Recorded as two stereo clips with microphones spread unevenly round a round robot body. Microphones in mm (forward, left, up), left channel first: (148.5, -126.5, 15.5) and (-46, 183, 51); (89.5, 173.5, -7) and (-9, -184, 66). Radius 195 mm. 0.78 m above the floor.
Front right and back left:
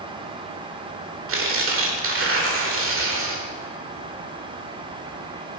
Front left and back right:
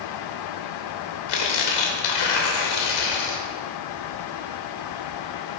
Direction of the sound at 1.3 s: 65° left.